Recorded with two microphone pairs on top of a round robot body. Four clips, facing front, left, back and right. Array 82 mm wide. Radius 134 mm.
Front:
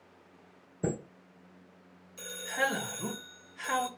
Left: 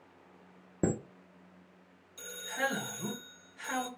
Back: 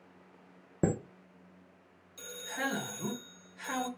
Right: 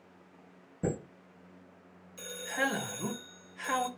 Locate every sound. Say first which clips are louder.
0.8 s a chime: left 2 dB, back 3 dB; 145° left, 0.5 m
2.2 s a man speaking: right 2 dB, front 5 dB; 55° right, 1.0 m